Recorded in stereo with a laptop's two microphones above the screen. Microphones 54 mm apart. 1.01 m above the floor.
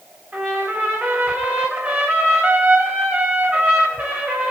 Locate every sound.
0.3 s a trumpet: 35° right (ahead or behind), 1.5 m